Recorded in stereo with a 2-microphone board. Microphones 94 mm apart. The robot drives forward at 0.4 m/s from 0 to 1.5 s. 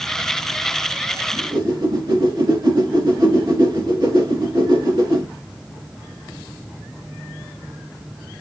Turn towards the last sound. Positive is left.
turn(degrees=-50)  # may be behind; listen again after turning